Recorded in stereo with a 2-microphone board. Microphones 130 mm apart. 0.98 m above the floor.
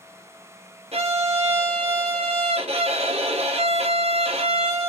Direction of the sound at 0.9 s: 50° right (ahead or behind).